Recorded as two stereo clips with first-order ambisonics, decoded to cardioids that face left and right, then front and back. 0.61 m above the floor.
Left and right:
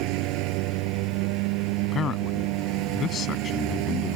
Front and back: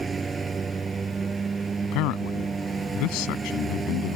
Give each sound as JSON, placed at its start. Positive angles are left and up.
{"t": 0.0, "sound": "a lawn mower", "azimuth_deg": -105}
{"t": 1.8, "sound": "a man speaking", "azimuth_deg": 25}